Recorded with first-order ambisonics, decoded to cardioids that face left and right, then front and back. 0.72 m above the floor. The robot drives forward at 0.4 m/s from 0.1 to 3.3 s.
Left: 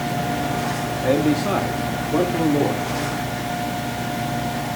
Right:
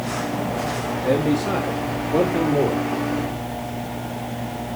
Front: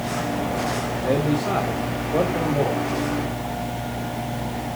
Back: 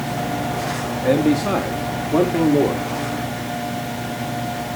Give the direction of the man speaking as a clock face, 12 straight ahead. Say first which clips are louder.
Left 1 dB, back 5 dB; 7 o'clock.